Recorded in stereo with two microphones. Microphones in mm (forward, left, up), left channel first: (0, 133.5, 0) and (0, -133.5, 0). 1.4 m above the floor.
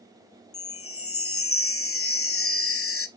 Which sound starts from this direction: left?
A chime, at 0.5 s.